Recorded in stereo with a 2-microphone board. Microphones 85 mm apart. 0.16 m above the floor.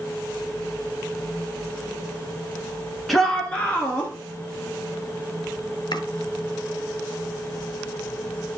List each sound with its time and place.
3.1 s a shout: centre (ahead or behind), 1.7 m; by 4.1 s 20° left (ahead or behind), 2.5 m
5.9 s chopping: 60° left (ahead or behind), 1.4 m